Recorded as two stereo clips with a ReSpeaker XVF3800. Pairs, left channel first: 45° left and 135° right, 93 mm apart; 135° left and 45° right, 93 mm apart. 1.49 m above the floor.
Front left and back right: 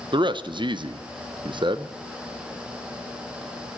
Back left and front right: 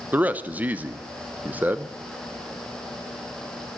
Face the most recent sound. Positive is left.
turn(degrees=-115)